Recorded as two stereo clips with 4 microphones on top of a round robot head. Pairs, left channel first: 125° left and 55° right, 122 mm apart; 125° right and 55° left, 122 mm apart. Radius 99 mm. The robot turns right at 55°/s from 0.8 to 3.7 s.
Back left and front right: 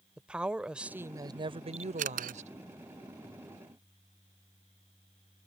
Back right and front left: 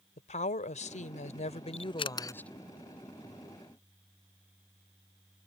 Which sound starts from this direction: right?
A camera shutter, at 1.7 s.